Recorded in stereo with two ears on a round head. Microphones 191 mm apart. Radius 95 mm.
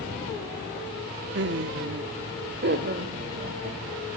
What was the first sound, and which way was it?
Laughter, 55° right (ahead or behind).